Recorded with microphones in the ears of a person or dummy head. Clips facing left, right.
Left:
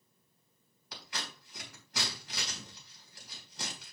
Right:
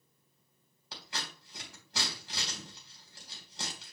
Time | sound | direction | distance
0.9 | scissors | 30° right (ahead or behind) | 4 m